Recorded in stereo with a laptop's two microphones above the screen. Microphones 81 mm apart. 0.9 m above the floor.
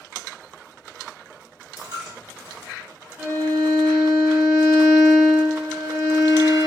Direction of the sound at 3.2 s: 35° right (ahead or behind).